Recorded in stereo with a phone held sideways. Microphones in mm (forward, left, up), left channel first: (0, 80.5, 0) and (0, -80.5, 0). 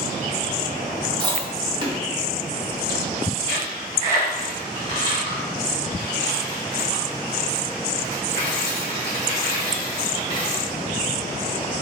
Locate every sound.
1.2 s chewing: 30° right (ahead or behind), 1.8 m
3.5 s a dropped coin: 30° left (ahead or behind), 2.5 m